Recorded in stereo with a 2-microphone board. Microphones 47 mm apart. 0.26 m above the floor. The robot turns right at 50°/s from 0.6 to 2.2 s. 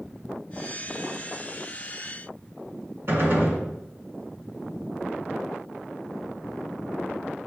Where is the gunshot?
55° right (ahead or behind), 2 m.